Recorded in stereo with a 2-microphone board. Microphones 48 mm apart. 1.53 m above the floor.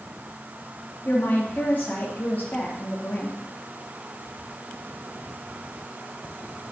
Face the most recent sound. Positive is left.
turn(degrees=40)  # may be behind; listen again after turning